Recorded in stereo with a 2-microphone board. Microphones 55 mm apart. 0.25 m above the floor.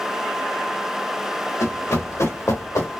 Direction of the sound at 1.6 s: 85° left.